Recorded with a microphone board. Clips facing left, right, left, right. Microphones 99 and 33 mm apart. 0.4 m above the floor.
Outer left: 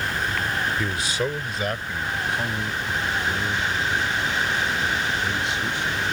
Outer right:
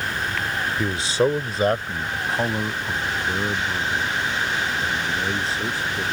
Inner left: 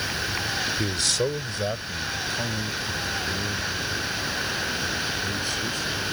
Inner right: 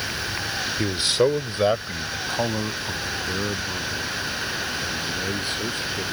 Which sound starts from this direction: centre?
A man speaking, at 0.8 s.